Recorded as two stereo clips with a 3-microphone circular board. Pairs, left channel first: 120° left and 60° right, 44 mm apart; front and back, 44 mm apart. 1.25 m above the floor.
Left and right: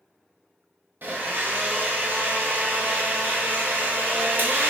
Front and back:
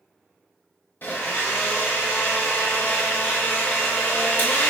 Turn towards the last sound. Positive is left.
turn(degrees=-30)